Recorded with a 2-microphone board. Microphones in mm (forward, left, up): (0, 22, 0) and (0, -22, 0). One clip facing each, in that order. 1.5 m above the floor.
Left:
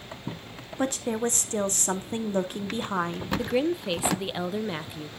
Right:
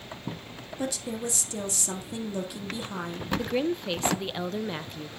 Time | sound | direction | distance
0.8 | a woman speaking | 45° left (ahead or behind) | 1.2 m
3.4 | a woman speaking | 10° left (ahead or behind) | 0.5 m